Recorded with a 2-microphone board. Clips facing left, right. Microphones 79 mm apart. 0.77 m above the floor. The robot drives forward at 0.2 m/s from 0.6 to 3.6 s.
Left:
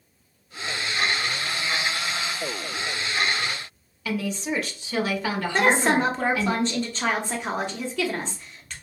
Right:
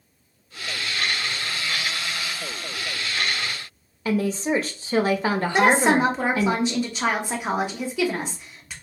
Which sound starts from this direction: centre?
A woman speaking, at 5.5 s.